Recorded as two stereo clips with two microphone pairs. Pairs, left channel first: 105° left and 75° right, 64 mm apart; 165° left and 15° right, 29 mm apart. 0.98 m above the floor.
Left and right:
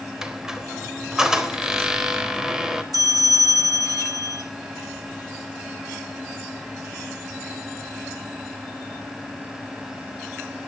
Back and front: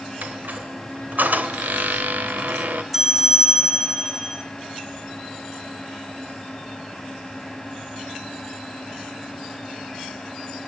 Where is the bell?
100° right, 2.5 m.